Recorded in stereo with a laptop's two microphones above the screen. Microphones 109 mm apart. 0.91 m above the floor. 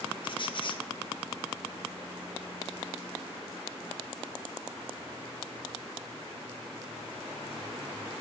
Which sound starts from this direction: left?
A squeak, at 0.2 s.